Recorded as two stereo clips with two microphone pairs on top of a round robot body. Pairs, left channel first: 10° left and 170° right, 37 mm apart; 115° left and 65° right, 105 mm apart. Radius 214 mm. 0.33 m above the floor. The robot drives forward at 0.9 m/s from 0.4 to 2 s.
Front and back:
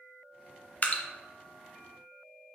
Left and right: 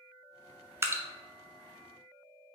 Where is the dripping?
20° right, 0.7 m; by 1.0 s 30° right, 0.6 m.